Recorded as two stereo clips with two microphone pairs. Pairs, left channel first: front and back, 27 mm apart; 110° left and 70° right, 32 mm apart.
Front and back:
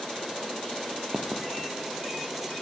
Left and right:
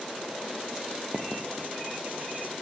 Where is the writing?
100° right, 3 m.